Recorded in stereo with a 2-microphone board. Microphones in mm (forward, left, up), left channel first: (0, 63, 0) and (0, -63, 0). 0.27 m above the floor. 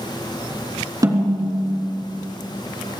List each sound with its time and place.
1.0 s a snare drum: 30° right (ahead or behind), 3 m